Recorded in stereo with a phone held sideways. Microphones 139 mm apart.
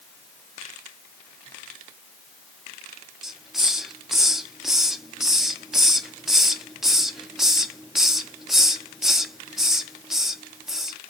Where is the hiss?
Centre (ahead or behind), 0.7 m.